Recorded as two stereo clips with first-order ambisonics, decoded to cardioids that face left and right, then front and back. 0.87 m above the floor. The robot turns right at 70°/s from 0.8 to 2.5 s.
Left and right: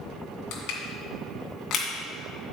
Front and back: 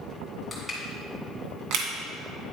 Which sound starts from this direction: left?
Crushing, at 0.5 s.